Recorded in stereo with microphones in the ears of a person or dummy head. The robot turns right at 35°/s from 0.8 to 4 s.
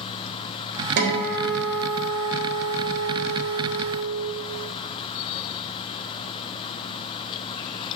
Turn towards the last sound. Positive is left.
turn(degrees=40)